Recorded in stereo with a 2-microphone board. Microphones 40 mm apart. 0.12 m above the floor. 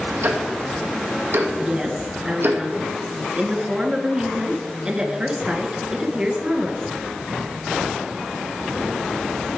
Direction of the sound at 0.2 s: 75° right (ahead or behind).